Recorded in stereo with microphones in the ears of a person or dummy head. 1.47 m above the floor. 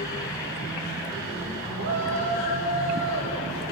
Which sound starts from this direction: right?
A shout, at 1.8 s.